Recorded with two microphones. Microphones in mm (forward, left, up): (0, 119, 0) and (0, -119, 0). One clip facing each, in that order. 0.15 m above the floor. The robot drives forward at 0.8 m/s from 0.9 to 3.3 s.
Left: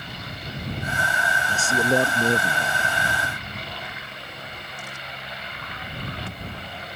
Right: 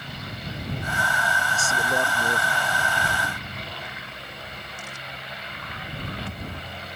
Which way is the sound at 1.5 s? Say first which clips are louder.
Left 9 dB; 40° left (ahead or behind).